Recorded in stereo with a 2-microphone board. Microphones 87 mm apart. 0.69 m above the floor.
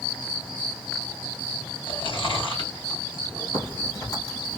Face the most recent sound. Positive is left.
turn(degrees=45)  # may be behind; listen again after turning